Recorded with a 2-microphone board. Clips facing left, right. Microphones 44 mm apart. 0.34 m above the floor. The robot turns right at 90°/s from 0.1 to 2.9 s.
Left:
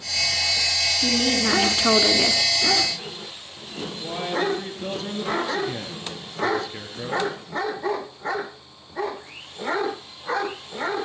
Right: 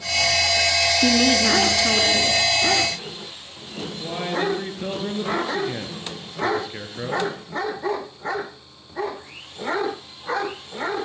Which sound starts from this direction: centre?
A man speaking, at 4.0 s.